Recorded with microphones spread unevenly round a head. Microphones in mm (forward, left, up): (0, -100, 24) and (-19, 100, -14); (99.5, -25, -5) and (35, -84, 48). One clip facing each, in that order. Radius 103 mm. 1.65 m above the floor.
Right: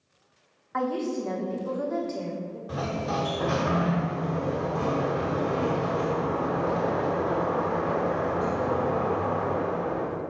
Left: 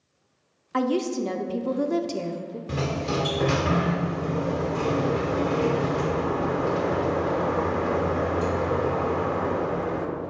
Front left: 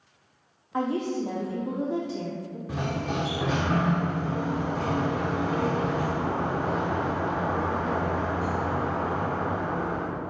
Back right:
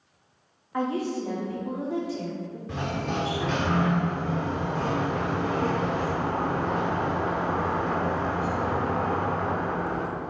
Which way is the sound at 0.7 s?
145° left.